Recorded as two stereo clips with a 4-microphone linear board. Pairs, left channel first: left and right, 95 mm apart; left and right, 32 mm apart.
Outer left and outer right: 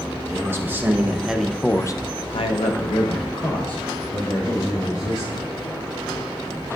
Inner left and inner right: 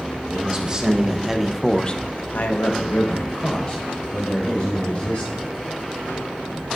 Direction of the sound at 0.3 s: 30° right (ahead or behind).